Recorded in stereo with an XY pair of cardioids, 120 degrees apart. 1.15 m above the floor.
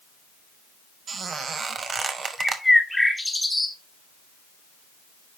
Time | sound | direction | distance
1.1 | a squeak | 35° right | 1.0 m
2.4 | a bird | 5° left | 1.5 m